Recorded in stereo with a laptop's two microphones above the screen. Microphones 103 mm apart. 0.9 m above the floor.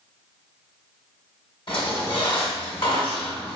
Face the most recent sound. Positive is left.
turn(degrees=55)  # may be behind; listen again after turning